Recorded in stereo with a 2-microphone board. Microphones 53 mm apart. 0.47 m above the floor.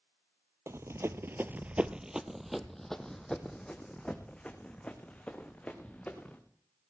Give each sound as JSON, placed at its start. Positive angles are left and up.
{"t": 0.7, "sound": "running footsteps", "side_deg": -60, "distance_m": 0.8}